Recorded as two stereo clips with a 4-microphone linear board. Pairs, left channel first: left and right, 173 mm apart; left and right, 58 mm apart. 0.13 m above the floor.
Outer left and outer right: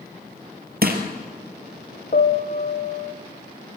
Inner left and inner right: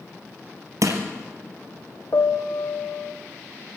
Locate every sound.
0.8 s crushing: 65° right (ahead or behind), 3 m
2.1 s a piano: 60° left (ahead or behind), 1.7 m